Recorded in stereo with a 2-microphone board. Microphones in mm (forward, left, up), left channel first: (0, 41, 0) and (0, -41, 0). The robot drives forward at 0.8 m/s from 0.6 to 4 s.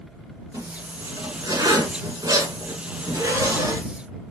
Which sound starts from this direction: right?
A zipper, at 0.5 s.